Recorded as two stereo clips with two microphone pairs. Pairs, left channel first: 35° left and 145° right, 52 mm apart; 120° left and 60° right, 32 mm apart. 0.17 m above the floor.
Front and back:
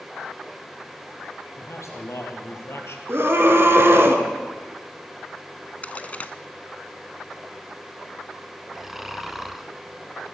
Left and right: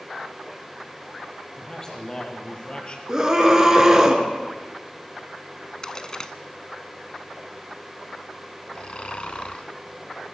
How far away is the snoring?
About 1.0 m.